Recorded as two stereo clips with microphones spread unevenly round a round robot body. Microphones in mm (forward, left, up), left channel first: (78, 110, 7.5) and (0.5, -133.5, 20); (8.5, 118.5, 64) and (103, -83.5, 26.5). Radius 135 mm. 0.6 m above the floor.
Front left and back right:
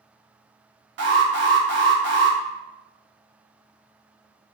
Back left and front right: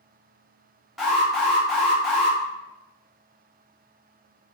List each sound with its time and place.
1.0 s an alarm: 145° right, 1.9 m